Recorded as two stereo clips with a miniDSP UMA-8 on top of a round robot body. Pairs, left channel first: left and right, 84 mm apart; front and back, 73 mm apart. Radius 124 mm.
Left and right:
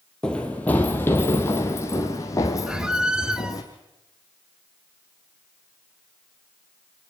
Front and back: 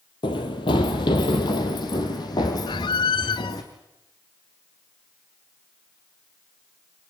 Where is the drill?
I don't hear a drill.